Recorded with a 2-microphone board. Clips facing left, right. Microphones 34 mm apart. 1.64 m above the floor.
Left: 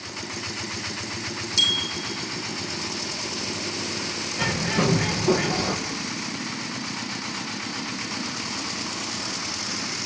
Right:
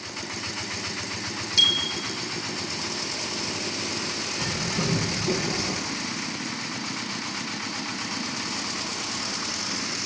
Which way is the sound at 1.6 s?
15° right (ahead or behind).